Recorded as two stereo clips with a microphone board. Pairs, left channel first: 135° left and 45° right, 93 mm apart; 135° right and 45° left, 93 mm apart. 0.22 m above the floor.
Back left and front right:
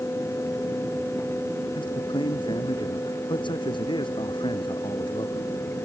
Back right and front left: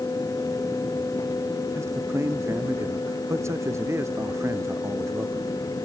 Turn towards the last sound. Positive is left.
turn(degrees=105)